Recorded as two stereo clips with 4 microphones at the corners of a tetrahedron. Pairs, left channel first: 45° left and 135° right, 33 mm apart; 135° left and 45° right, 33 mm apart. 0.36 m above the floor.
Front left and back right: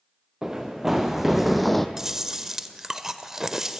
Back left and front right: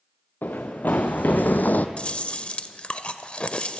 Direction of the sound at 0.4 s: 150° left.